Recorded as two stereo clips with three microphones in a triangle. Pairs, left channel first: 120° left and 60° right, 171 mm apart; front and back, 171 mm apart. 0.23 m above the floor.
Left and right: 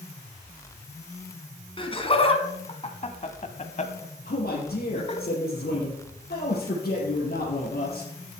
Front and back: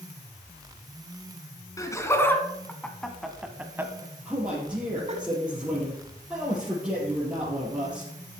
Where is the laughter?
65° left, 2 m; by 5.2 s 155° left, 1.5 m.